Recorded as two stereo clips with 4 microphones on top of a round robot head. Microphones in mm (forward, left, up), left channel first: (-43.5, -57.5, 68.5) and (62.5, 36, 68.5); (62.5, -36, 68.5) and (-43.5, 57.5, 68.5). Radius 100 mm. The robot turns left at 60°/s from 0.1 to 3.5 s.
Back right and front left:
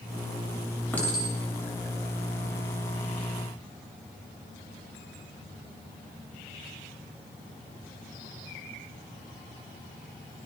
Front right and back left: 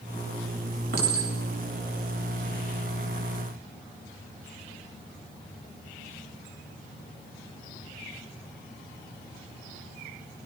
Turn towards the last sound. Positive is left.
turn(degrees=-10)